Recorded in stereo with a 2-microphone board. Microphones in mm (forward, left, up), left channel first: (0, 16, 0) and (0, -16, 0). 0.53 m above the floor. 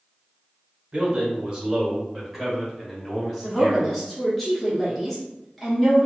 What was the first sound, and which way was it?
A man speaking, 30° right (ahead or behind).